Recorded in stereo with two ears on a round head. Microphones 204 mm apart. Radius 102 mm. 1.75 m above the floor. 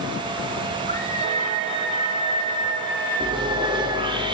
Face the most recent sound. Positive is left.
turn(degrees=-20)  # may be behind; listen again after turning